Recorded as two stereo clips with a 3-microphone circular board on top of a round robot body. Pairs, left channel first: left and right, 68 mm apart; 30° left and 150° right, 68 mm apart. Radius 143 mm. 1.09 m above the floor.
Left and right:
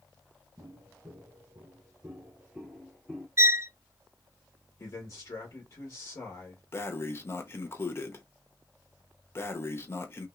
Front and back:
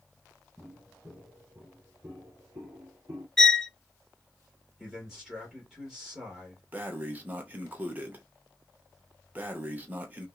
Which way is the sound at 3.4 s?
50° right.